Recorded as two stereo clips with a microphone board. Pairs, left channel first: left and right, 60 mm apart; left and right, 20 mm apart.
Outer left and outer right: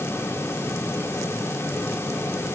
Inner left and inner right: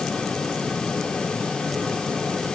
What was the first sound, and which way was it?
Only background noise.